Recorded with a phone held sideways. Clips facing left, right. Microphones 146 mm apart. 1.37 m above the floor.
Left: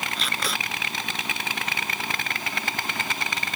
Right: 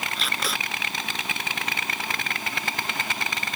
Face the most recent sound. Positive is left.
turn(degrees=0)  # may be behind; listen again after turning